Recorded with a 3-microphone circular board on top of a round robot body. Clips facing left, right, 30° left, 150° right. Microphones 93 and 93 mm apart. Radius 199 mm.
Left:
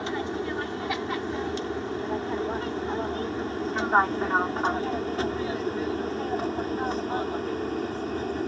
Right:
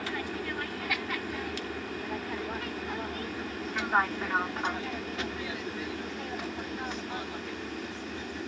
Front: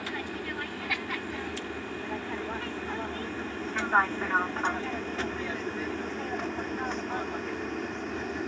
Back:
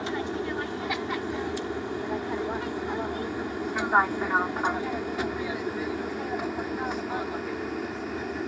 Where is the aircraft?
150° left; by 8.5 s 125° left.